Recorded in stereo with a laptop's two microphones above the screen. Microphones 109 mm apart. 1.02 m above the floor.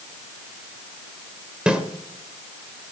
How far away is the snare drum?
About 1.6 m.